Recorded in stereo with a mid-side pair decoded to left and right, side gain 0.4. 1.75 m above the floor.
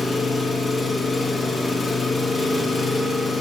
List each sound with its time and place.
0.0 s an engine running: 30° left, 2.0 m